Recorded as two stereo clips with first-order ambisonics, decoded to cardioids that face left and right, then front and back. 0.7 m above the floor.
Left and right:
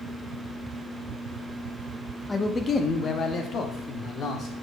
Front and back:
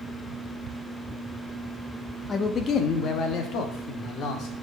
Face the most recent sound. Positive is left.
turn(degrees=35)